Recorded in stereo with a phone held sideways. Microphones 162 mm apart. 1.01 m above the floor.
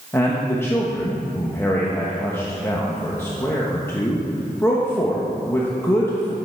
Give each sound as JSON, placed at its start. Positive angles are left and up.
{"t": 0.1, "sound": "a man speaking", "side_deg": 15, "distance_m": 0.8}